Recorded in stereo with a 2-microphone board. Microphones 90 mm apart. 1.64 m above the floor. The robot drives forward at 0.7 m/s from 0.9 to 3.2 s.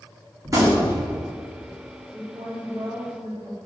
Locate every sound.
0.5 s a gunshot: 35° right (ahead or behind), 2.5 m
2.1 s a woman speaking: 30° right (ahead or behind), 3 m; by 3.5 s 40° right (ahead or behind), 2.5 m